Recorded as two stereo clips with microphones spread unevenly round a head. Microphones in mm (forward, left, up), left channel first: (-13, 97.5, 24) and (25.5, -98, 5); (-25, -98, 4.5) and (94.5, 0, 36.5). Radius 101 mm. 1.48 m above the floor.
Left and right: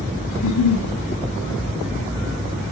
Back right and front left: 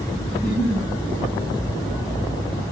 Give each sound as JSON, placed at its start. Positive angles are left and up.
{"t": 0.3, "sound": "a giggle", "azimuth_deg": 130, "distance_m": 4.0}